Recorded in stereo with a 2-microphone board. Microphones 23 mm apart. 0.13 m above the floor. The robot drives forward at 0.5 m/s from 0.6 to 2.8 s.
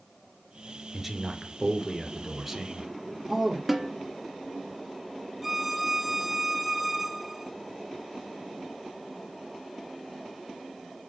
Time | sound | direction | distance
0.9 | a man speaking | 10° right (ahead or behind) | 2.5 m
3.7 | a snare drum | 10° right (ahead or behind) | 1.8 m
5.4 | a violin | 5° right (ahead or behind) | 0.8 m